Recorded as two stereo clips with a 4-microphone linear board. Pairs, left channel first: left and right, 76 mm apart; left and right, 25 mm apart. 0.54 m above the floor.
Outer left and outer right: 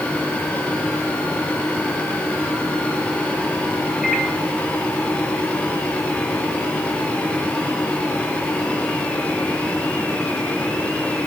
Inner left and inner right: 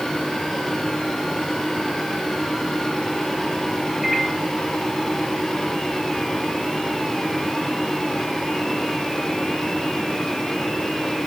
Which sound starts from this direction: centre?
A microwave, at 4.0 s.